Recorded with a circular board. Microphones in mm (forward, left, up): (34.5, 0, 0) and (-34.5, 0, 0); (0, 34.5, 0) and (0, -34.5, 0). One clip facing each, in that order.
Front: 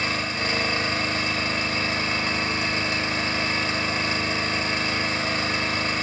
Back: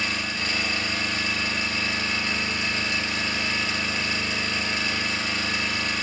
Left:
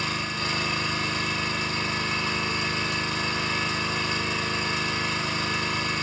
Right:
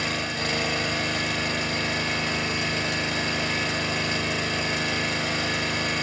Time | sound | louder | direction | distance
0.0 | an engine running | front 2 dB, right 1 dB | 60° right | 2 m